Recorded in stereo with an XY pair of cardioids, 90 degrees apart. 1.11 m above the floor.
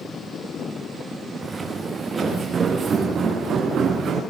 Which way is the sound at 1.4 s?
30° right.